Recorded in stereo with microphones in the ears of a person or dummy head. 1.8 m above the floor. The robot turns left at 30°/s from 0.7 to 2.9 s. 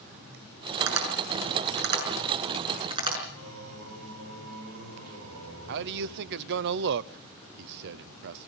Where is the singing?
75° right (ahead or behind), 5 m.